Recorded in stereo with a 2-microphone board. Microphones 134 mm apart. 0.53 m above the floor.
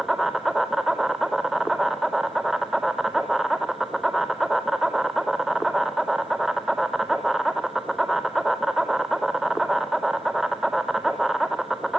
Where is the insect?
Centre (ahead or behind), 1.5 m.